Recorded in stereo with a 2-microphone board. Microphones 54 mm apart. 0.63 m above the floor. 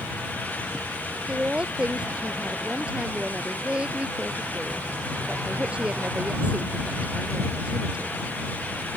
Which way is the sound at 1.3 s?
20° right (ahead or behind).